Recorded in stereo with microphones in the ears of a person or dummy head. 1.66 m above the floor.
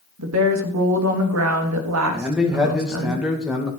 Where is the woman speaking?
85° right, 3 m.